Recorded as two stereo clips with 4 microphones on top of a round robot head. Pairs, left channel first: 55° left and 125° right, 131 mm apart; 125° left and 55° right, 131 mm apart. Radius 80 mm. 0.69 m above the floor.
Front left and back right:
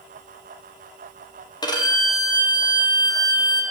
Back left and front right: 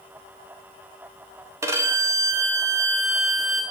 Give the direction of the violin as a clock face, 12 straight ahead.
12 o'clock.